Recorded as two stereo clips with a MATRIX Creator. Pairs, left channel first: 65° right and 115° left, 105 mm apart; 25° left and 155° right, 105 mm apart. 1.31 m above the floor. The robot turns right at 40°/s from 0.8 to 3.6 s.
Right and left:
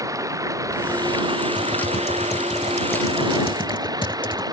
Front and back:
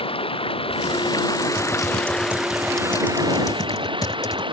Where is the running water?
55° left; by 4.5 s 165° left.